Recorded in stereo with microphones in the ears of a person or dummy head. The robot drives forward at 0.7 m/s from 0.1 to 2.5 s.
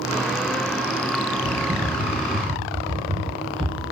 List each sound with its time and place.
1.4 s typing on a keyboard: 5° left (ahead or behind), 1.9 m; by 3.8 s centre (ahead or behind), 2.5 m